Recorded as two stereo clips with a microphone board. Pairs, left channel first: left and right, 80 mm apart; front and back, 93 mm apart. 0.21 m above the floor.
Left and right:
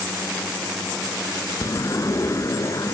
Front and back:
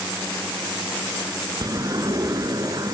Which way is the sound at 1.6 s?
135° left.